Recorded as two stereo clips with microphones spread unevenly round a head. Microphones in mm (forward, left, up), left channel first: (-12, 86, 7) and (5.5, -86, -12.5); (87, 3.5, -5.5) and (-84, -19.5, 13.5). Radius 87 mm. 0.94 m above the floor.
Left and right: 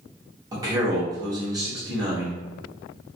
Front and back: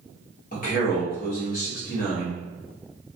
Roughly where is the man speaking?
Ahead.